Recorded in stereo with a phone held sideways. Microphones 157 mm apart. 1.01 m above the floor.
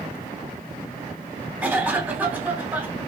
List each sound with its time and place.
1.6 s a cough: 10° right (ahead or behind), 3 m